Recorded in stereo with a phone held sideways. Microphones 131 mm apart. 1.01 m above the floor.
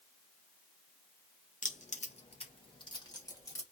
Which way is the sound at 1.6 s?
75° left (ahead or behind).